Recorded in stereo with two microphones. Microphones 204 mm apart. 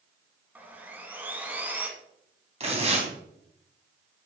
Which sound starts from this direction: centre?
Sawing, at 0.6 s.